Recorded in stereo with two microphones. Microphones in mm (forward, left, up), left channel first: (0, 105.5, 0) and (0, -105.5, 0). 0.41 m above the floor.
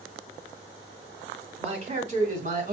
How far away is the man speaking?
About 3 m.